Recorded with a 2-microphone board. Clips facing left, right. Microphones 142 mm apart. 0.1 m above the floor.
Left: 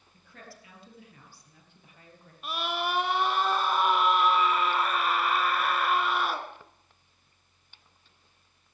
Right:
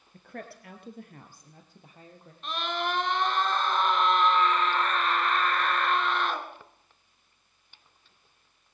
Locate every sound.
0.1 s a woman speaking: 55° right (ahead or behind), 2.5 m; by 2.3 s 25° right (ahead or behind), 3 m
2.4 s a scream: 10° left (ahead or behind), 1.7 m